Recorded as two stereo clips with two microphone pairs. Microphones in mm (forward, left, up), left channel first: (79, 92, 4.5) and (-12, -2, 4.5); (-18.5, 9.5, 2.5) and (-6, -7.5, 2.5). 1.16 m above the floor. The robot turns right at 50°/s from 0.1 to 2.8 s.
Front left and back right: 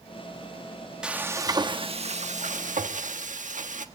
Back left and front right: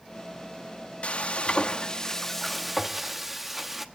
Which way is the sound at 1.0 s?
140° left.